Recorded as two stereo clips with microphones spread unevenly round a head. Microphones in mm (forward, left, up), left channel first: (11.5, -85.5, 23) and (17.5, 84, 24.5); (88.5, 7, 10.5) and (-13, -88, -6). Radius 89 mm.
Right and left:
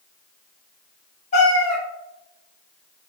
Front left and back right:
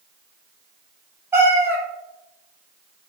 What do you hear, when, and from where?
1.3 s a cat meowing: 60° right, 0.8 m